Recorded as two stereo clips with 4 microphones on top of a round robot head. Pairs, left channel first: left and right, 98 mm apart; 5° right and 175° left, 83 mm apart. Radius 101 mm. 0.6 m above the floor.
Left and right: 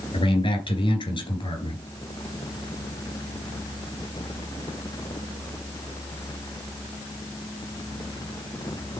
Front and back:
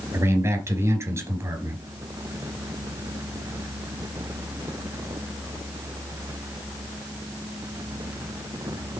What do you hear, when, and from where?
0.1 s a man speaking: 120° left, 4 m